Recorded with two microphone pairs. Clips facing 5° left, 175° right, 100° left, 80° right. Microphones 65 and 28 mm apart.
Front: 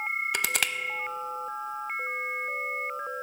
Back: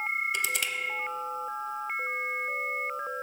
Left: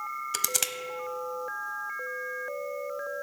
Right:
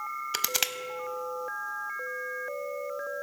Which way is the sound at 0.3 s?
10° right.